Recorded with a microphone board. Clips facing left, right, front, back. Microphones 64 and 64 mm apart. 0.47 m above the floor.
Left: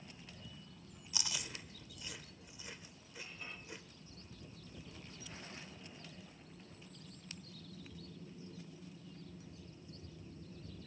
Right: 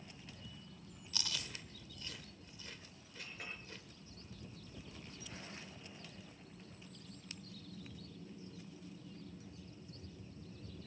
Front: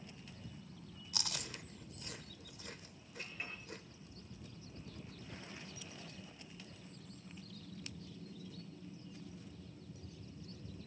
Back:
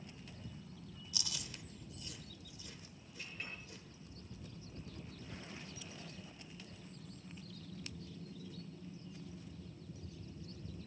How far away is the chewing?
About 0.9 m.